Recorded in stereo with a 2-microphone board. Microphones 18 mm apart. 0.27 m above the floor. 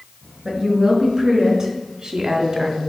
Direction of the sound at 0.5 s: 10° right (ahead or behind).